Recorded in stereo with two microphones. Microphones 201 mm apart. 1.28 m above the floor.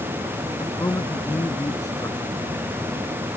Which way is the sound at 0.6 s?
15° left (ahead or behind).